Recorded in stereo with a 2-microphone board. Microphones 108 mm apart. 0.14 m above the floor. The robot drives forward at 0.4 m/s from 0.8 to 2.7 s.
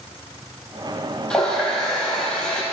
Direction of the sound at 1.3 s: 10° left (ahead or behind).